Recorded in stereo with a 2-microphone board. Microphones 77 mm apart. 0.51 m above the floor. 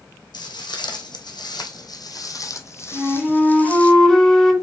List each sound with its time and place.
0.3 s footsteps: 75° left (ahead or behind), 2 m; by 3.9 s 15° left (ahead or behind), 1.8 m
2.9 s a flute: centre (ahead or behind), 2.5 m